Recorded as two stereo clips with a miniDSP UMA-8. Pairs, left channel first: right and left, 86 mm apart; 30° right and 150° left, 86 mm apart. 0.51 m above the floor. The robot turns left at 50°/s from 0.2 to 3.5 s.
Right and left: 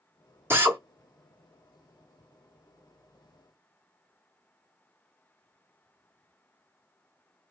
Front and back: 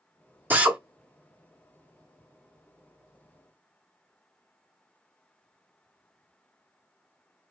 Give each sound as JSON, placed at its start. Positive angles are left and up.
{"t": 0.5, "sound": "a drill", "azimuth_deg": 110, "distance_m": 0.8}